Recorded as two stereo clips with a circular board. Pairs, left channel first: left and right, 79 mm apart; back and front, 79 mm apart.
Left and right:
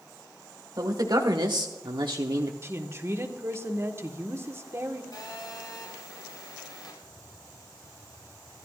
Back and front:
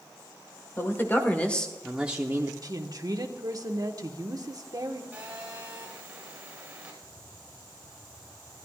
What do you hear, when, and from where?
0.8 s a man speaking: 125° right, 1.8 m; by 2.5 s 50° right, 0.9 m
2.6 s a woman speaking: 35° right, 1.4 m
5.1 s a phone buzzing: 70° left, 4.5 m
7.0 s tapping: 175° left, 4 m